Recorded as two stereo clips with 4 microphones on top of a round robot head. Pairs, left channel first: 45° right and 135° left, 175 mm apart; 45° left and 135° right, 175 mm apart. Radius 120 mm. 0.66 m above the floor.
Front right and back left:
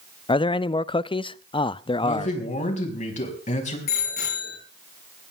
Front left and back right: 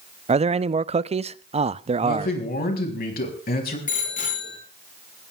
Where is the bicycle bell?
5° right, 7 m.